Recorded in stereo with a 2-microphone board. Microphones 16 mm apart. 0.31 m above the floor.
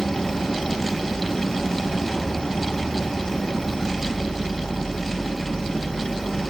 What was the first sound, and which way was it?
An insect, 60° left (ahead or behind).